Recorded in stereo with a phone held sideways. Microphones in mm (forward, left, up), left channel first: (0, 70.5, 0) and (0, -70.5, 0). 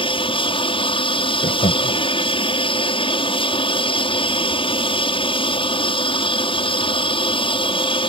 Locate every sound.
0.0 s an aircraft: 40° left (ahead or behind)
1.4 s laughter: 60° left (ahead or behind)